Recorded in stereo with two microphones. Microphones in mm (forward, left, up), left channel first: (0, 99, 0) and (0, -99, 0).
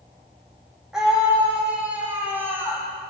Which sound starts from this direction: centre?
A scream, at 0.9 s.